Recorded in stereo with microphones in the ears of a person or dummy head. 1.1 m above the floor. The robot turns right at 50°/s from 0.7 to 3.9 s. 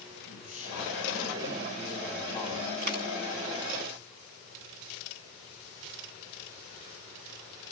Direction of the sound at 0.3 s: 95° left.